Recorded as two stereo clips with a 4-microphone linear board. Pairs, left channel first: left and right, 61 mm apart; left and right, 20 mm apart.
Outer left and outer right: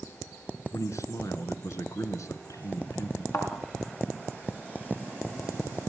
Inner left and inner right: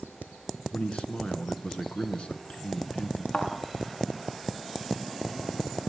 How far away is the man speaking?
About 1.9 m.